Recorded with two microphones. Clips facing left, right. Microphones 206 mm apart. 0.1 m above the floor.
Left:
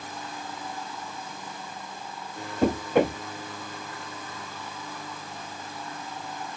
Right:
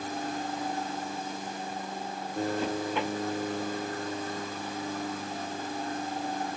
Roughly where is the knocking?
Left.